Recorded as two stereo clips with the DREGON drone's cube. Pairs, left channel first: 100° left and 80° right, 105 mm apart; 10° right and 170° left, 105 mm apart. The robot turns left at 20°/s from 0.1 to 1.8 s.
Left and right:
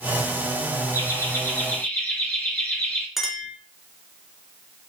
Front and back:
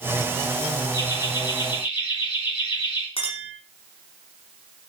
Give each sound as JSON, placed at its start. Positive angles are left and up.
{"t": 0.9, "sound": "laughter", "azimuth_deg": 45, "distance_m": 2.0}
{"t": 3.2, "sound": "a clink", "azimuth_deg": 5, "distance_m": 2.0}